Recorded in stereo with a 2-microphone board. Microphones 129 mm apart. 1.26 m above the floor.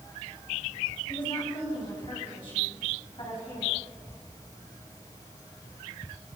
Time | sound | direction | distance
1.1 | a woman speaking | 40° left (ahead or behind) | 7.5 m